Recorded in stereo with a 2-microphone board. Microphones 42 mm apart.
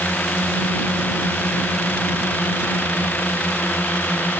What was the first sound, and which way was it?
A drone, 40° left (ahead or behind).